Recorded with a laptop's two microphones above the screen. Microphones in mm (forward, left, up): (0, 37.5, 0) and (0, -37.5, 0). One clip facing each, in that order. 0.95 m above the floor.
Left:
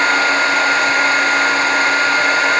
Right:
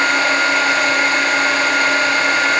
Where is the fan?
45° left (ahead or behind), 1.6 m.